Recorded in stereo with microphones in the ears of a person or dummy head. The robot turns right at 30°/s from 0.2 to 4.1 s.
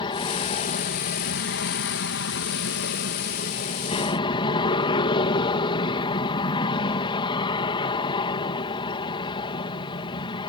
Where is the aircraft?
35° left; by 10.5 s 155° left.